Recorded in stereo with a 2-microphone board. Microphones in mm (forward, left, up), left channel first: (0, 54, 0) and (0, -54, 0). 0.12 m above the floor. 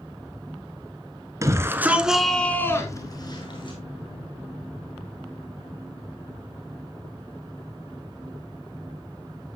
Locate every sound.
1.4 s a shout: 30° right (ahead or behind), 1.4 m; by 3.8 s 50° left (ahead or behind), 1.8 m